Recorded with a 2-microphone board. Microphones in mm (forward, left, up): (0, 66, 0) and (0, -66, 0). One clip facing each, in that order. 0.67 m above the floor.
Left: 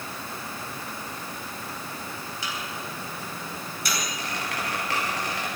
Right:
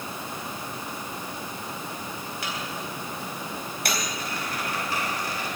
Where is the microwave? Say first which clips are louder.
Right 1 dB; 60° right (ahead or behind), 3.5 m.